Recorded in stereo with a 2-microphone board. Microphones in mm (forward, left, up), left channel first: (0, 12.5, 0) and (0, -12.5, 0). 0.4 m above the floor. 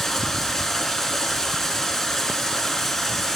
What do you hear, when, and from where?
0.0 s running water: 10° left (ahead or behind), 2.5 m